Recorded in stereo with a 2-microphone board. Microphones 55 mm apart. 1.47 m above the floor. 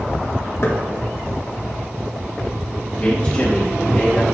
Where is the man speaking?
35° left (ahead or behind), 2 m.